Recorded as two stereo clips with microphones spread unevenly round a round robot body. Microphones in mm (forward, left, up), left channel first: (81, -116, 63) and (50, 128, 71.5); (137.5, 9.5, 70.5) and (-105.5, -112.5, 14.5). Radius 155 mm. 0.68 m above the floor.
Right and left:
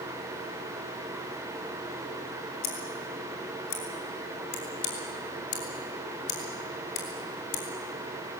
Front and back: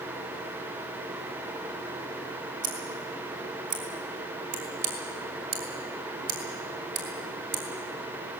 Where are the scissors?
130° right, 4 m.